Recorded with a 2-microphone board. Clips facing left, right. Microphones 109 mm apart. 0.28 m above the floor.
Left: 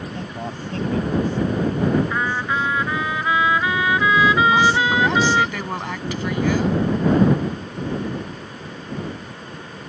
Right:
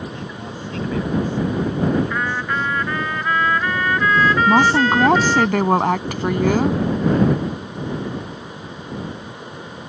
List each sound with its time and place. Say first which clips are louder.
0.1 s a man speaking: left 1 dB; 40° left (ahead or behind)
2.1 s a trumpet: even; 10° left (ahead or behind)
4.5 s a woman speaking: right 2 dB; 50° right (ahead or behind)